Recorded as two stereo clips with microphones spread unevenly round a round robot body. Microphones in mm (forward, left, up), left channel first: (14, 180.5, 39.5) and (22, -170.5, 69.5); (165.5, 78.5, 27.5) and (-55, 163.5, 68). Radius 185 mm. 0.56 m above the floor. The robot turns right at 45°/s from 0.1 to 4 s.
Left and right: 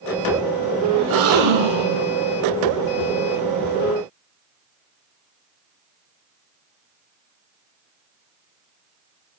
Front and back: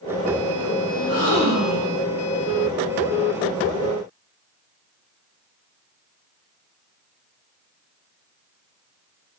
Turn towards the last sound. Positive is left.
turn(degrees=-15)